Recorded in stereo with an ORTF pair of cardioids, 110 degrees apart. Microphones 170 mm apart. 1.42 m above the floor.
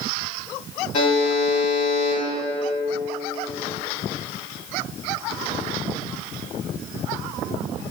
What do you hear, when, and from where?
0.9 s a buzzer: 45° left, 1.1 m